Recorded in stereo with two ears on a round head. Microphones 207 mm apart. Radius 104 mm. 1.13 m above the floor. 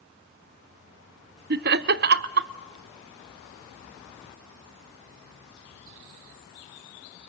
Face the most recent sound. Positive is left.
turn(degrees=-50)  # may be behind; listen again after turning